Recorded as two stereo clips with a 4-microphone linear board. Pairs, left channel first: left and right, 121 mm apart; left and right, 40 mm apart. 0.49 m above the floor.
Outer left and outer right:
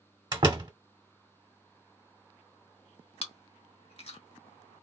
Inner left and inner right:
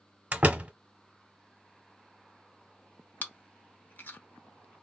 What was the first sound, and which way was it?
A door slam, 35° right (ahead or behind).